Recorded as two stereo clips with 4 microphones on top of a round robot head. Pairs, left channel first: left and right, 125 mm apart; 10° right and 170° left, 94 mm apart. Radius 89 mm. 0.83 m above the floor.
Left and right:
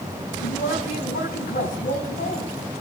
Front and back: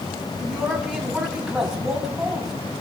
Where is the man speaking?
85° left, 7 m.